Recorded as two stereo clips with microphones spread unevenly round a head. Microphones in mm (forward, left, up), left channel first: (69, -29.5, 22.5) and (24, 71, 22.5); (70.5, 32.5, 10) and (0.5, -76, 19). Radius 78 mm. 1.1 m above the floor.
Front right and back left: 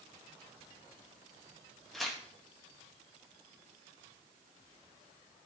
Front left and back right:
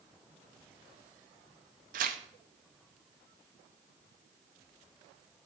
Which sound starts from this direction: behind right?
Tearing paper, at 1.9 s.